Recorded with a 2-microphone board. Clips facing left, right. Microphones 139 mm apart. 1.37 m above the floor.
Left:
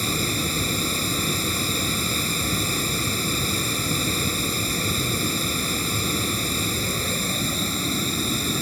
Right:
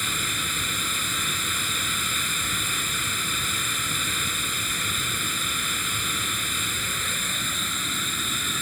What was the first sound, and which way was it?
Running water, 35° left (ahead or behind).